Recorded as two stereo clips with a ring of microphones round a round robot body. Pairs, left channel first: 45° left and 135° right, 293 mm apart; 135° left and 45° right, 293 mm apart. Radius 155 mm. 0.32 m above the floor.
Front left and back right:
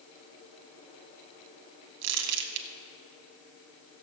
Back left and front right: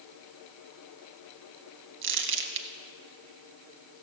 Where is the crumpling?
95° right, 0.9 m.